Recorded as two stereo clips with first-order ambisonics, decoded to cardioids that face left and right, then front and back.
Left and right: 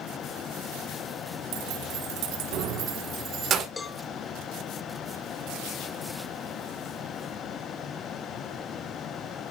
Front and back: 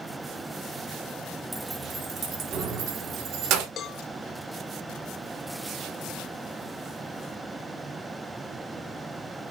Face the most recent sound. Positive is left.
turn(degrees=25)